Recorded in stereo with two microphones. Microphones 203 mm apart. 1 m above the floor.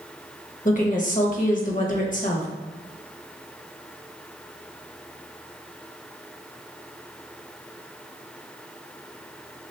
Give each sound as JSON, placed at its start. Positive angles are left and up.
{"t": 0.7, "sound": "a woman speaking", "side_deg": 40, "distance_m": 0.8}